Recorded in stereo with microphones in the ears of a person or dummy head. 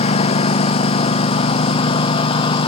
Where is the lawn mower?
35° left (ahead or behind); by 2.7 s 30° left (ahead or behind).